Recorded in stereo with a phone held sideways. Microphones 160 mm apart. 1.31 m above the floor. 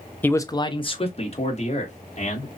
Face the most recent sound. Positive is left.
turn(degrees=50)  # may be behind; listen again after turning